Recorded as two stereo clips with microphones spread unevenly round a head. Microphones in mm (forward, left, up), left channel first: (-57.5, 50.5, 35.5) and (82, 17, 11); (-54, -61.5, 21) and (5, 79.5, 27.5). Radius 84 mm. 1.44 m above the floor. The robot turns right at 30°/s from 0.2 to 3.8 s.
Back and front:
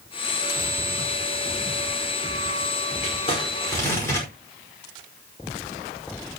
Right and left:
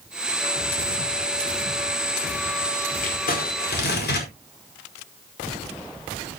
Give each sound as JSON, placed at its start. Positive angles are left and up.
{"t": 3.0, "sound": "crumpling", "azimuth_deg": -145, "distance_m": 5.0}